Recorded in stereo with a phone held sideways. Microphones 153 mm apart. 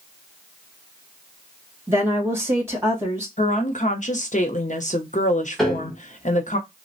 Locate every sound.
1.9 s a woman speaking: 15° right (ahead or behind), 1.6 m
3.4 s a woman speaking: 55° left (ahead or behind), 0.7 m
5.6 s a piano: centre (ahead or behind), 1.1 m